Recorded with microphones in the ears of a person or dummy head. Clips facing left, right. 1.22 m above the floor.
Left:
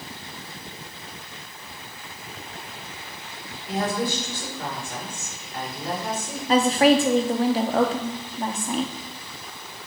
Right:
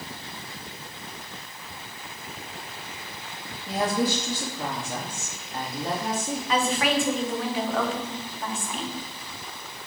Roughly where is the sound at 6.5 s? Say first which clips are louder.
Left 8 dB; left.